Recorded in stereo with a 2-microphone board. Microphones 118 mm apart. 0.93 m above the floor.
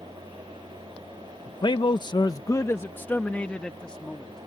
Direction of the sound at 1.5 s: 40° left (ahead or behind).